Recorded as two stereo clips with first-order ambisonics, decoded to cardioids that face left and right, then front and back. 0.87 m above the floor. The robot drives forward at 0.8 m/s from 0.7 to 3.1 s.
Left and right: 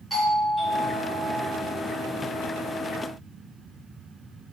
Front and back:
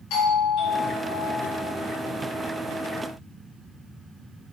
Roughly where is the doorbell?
Ahead.